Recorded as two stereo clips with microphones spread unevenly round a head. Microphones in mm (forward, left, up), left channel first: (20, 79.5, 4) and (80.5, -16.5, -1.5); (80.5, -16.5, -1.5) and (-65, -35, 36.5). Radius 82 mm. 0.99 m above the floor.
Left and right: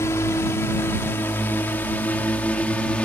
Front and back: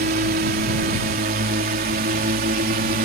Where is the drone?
165° right; by 3.0 s 155° right.